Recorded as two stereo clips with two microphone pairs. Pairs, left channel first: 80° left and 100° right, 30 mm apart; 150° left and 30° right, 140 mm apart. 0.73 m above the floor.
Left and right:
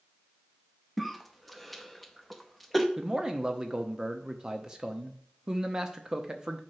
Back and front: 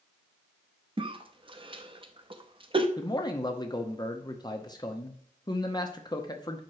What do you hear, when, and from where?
1.0 s a cough: 5° right, 0.6 m
3.0 s a man speaking: 160° right, 0.7 m